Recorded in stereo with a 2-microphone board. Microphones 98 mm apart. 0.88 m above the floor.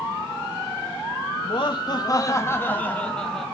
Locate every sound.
1.4 s laughter: 60° left (ahead or behind), 1.1 m; by 3.5 s centre (ahead or behind), 1.5 m